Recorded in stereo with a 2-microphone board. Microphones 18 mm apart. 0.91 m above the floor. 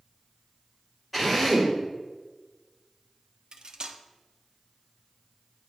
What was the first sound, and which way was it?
A drill, 5° right (ahead or behind).